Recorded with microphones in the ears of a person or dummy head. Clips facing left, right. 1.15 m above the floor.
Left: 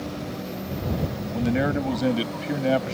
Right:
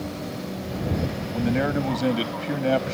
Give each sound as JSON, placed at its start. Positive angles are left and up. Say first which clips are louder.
{"t": 1.3, "sound": "a man speaking", "louder": "even", "side_deg": 0}